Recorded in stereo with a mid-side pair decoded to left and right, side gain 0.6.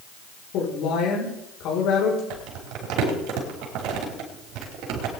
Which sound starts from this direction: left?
A woman speaking, at 0.5 s.